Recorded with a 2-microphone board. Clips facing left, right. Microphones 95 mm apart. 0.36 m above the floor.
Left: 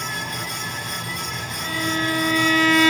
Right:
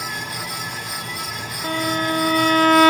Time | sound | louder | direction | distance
1.6 | a violin | right 3 dB | 45° right (ahead or behind) | 0.7 m